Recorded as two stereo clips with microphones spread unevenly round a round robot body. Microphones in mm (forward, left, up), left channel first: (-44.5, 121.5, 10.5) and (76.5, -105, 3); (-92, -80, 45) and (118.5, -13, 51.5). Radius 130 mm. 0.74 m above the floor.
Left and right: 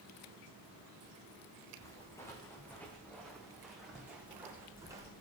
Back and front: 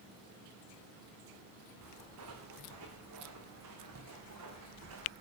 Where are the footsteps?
40° left, 4.5 m; by 5.1 s 15° left, 3.5 m.